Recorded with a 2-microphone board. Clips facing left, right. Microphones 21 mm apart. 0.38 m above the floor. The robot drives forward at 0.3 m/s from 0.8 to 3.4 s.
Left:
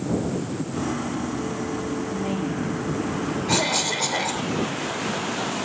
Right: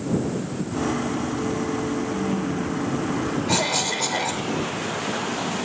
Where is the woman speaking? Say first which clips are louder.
Right 1 dB; 65° left (ahead or behind), 5.5 m.